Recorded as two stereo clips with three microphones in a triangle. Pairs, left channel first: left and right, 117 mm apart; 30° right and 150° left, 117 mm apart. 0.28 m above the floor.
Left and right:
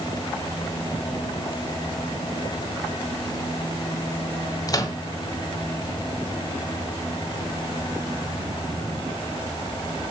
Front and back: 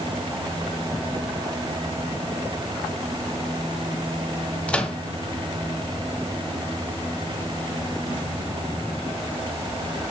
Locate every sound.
4.7 s a microwave: 45° left, 1.6 m